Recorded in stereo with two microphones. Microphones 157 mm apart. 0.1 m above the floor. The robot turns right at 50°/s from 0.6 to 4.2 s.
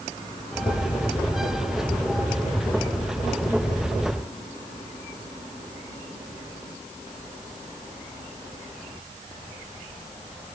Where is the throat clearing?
I don't hear throat clearing.